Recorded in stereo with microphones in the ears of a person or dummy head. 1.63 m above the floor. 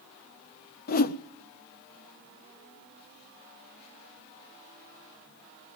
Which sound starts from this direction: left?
A whoosh, at 0.9 s.